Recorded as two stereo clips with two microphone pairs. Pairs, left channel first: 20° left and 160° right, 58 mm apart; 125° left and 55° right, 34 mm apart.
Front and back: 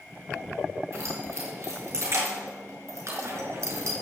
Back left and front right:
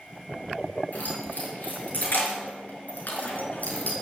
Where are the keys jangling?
165° left, 6 m.